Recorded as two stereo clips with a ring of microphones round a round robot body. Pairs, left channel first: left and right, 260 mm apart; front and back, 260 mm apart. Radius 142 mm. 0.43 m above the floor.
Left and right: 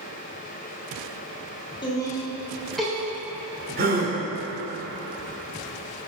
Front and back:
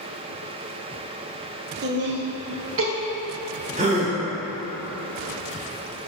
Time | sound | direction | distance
1.8 | laughter | 155° left | 1.4 m
3.8 | a gasp | 125° right | 1.4 m